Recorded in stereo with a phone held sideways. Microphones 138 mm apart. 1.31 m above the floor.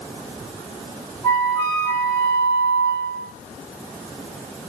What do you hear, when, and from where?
1.2 s a flute: 20° left (ahead or behind), 1.3 m